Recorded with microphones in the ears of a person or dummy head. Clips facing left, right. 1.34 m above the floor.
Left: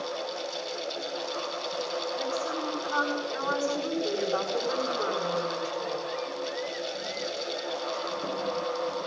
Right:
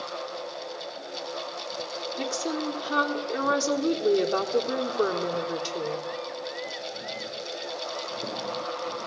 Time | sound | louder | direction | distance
2.2 | a woman speaking | right 1 dB | 55° right (ahead or behind) | 3.5 m